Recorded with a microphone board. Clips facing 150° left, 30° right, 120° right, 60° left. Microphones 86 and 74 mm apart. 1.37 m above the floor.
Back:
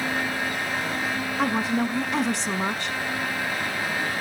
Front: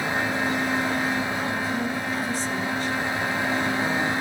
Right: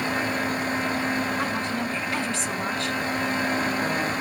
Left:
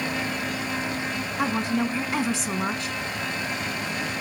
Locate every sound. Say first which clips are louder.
1.4 s a woman speaking: back 3 dB, left 2 dB; 140° left, 1.4 m